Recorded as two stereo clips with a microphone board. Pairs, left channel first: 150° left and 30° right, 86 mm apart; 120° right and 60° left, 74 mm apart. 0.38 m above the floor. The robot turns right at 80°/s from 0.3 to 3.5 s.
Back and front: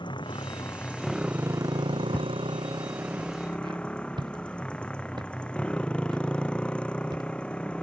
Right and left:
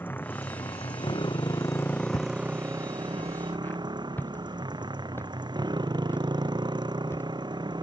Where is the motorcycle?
175° left; by 7.8 s 70° left.